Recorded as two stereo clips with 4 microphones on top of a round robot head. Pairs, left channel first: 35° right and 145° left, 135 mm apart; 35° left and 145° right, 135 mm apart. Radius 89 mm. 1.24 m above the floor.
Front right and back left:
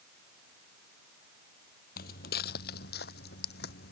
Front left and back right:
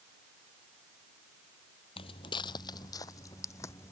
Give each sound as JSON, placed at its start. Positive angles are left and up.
{"t": 2.0, "sound": "footsteps", "azimuth_deg": -15}